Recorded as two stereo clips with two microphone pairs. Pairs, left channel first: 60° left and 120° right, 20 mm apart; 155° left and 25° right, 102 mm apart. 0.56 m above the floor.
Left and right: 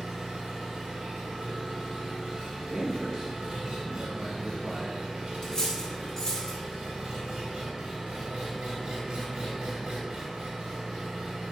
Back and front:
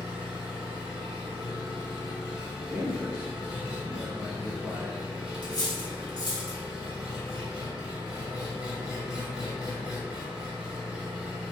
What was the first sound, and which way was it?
An engine running, 105° right.